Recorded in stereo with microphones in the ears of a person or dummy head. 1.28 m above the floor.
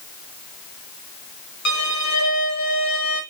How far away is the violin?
About 0.9 m.